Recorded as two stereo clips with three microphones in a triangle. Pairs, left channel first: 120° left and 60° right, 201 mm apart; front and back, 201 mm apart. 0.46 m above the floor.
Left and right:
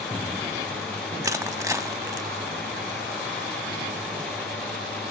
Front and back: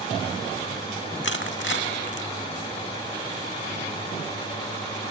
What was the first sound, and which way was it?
Crushing, 15° left.